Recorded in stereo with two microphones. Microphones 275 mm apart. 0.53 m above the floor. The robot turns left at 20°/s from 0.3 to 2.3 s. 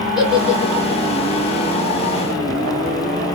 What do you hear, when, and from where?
0.2 s a giggle: centre (ahead or behind), 0.9 m; by 1.0 s 10° right (ahead or behind), 0.9 m